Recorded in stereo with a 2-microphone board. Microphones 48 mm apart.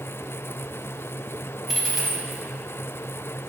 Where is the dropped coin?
5° right (ahead or behind), 0.5 m.